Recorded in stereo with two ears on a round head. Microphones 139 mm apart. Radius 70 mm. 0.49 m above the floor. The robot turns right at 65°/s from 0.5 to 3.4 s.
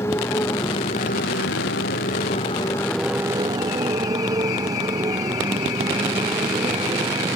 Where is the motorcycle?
15° left; by 7.4 s 155° right.